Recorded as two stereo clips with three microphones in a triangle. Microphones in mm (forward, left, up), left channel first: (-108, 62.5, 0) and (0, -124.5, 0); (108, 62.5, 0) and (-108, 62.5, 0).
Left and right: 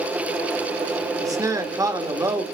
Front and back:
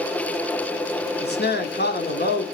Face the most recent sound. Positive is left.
turn(degrees=10)